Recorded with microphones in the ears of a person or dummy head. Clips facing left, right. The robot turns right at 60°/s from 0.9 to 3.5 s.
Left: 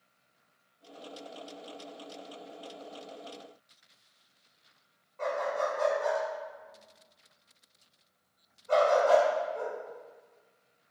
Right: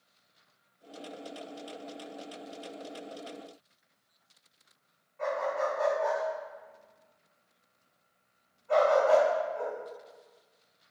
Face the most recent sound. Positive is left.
turn(degrees=50)  # may be behind; listen again after turning